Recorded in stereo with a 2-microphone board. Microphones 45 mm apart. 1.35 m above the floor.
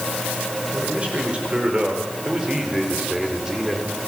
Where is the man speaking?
30° right (ahead or behind), 6.5 m; by 4.0 s 10° right (ahead or behind), 5 m.